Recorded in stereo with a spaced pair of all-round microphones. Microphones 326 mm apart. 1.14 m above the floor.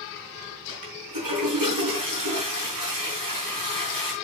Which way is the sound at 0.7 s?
85° right.